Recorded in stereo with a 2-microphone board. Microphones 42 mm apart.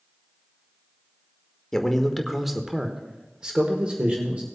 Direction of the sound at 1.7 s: 10° left (ahead or behind).